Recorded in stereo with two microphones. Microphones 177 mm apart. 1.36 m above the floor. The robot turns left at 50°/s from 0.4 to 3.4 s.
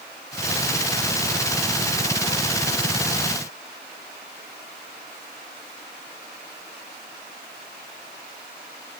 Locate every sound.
Only background noise.